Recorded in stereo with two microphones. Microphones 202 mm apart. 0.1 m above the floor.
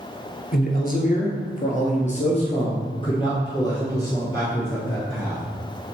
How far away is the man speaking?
About 1.5 m.